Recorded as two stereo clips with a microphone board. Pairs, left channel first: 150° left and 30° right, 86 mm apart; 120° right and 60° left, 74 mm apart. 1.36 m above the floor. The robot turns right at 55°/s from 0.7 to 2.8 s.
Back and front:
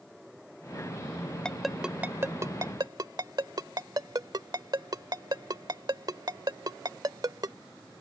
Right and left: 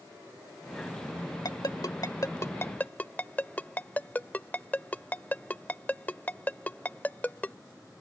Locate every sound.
1.4 s a ringtone: 130° right; by 7.6 s 55° right